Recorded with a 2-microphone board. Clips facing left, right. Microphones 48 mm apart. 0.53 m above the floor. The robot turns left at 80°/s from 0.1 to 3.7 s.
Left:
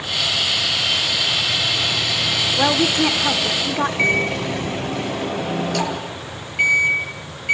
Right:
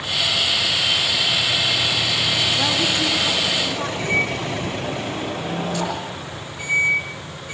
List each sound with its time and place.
2.6 s a woman speaking: 145° left, 1.5 m; by 3.9 s 50° left, 1.5 m
4.0 s a microwave: 65° left (ahead or behind), 9.5 m